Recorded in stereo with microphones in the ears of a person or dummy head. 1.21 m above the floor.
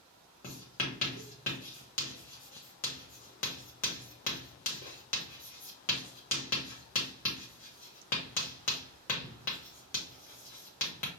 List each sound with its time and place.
0.4 s writing: 45° left (ahead or behind), 1.2 m